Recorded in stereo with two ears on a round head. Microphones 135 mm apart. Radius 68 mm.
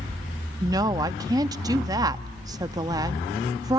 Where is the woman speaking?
25° right (ahead or behind), 0.8 m.